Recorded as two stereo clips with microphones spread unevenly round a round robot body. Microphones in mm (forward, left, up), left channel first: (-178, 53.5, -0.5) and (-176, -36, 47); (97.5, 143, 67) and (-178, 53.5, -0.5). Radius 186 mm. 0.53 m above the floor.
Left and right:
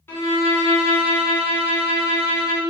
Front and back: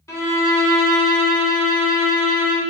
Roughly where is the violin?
Left.